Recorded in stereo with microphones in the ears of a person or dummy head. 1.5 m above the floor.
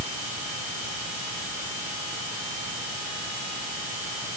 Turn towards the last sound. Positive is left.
No sound to turn to.